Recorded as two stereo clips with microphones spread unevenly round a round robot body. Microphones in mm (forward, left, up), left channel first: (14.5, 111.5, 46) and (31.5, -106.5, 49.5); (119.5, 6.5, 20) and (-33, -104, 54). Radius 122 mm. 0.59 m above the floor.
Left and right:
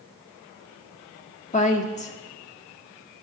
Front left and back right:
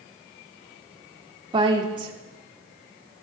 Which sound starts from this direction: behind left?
A woman speaking, at 1.5 s.